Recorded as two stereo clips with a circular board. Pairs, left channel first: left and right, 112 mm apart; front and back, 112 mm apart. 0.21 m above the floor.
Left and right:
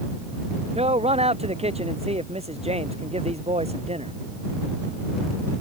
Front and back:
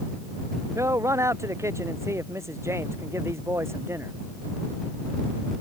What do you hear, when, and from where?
0.8 s a man speaking: 115° right; by 4.2 s 110° right